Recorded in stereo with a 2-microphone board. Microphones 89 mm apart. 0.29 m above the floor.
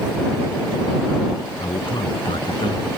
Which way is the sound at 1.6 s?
70° left (ahead or behind).